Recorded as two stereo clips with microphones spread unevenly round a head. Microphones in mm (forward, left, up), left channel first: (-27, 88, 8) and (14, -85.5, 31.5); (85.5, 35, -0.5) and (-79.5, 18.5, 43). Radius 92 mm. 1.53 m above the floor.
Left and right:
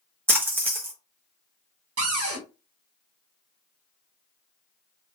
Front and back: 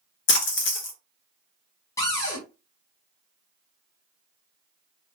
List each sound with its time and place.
0.3 s a splash: 10° right, 1.0 m
2.0 s a cupboard door: 70° right, 1.5 m